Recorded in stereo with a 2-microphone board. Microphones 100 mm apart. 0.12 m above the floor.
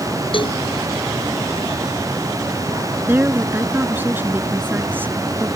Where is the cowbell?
60° left (ahead or behind).